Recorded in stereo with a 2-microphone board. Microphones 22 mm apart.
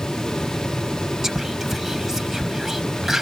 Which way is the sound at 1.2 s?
15° right (ahead or behind).